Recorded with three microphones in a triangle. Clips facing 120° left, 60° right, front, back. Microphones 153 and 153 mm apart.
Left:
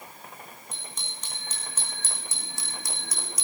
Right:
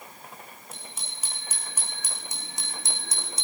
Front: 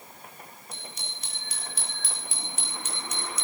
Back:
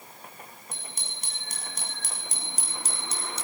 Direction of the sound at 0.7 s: 145° right.